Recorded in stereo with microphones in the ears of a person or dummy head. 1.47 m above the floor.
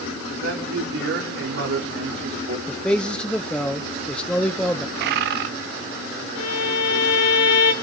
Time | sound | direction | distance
0.3 | a man speaking | 65° right (ahead or behind) | 3.5 m
2.7 | a man speaking | 10° left (ahead or behind) | 0.7 m
5.0 | a bird | 60° right (ahead or behind) | 0.9 m
6.3 | a violin | 70° left (ahead or behind) | 3 m